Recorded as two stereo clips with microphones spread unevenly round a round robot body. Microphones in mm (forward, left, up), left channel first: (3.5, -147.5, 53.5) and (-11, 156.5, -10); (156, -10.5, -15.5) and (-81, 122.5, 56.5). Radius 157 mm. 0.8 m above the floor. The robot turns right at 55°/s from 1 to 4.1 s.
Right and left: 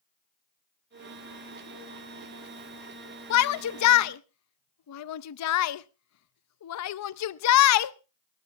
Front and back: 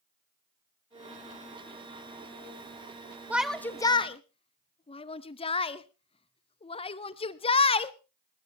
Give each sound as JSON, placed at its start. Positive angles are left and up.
{"t": 3.3, "sound": "a shout", "azimuth_deg": -110, "distance_m": 0.6}